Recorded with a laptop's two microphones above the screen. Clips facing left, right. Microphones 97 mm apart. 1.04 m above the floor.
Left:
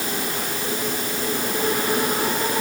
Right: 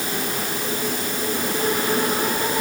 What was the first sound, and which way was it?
Only background noise.